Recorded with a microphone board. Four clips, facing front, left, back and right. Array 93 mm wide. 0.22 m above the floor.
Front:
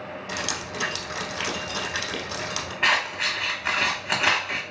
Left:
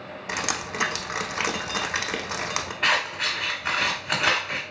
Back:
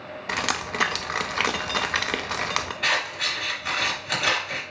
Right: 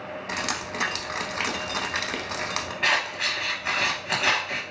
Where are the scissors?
10° left, 1.5 m.